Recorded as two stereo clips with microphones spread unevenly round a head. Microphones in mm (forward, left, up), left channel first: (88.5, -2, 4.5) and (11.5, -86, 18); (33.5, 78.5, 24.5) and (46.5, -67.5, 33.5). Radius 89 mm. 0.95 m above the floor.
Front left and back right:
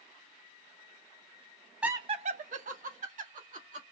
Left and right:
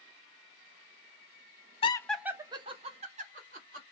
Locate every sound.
1.8 s laughter: 140° left, 0.5 m; by 3.8 s 130° right, 2 m